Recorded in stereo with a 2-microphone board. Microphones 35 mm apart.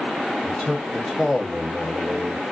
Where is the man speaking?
25° left (ahead or behind), 0.9 m; by 2.4 s 45° right (ahead or behind), 1.0 m.